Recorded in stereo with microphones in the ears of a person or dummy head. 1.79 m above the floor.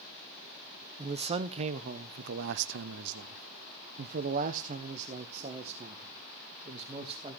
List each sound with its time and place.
1.0 s a man speaking: 25° right (ahead or behind), 1.3 m